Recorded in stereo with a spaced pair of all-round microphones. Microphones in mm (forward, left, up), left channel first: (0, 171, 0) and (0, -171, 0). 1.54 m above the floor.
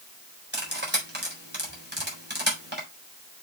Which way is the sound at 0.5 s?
30° right (ahead or behind).